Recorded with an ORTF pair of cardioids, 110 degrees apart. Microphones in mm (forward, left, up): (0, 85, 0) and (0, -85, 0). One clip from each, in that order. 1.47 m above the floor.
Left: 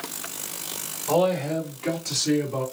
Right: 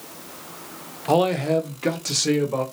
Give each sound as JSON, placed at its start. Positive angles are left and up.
{"t": 1.1, "sound": "a man speaking", "azimuth_deg": -40, "distance_m": 0.9}